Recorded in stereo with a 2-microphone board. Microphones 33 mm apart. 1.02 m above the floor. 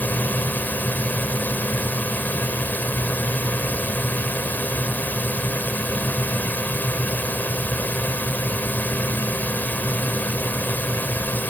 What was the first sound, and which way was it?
A drone, 65° left (ahead or behind).